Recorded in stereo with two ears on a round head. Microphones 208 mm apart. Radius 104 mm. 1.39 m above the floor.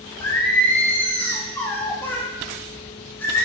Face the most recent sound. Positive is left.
turn(degrees=10)  # may be behind; listen again after turning